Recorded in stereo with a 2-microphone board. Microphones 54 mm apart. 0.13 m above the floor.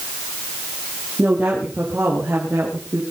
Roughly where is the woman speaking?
Right.